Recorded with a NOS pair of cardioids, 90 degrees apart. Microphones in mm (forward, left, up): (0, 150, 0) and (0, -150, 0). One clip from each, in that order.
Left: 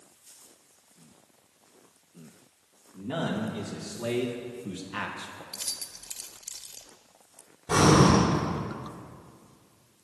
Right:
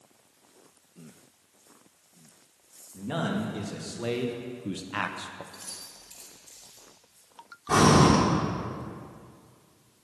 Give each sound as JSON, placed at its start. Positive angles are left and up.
{"t": 2.9, "sound": "a man speaking", "azimuth_deg": -20, "distance_m": 2.0}
{"t": 5.5, "sound": "keys jangling", "azimuth_deg": 70, "distance_m": 1.1}
{"t": 7.7, "sound": "breathing", "azimuth_deg": 0, "distance_m": 3.0}